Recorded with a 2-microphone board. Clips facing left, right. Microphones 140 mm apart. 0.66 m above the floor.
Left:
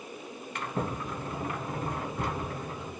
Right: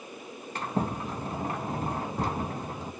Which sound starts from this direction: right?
A sliding door, at 0.6 s.